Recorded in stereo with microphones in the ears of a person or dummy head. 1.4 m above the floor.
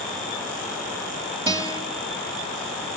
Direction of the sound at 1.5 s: 25° right (ahead or behind).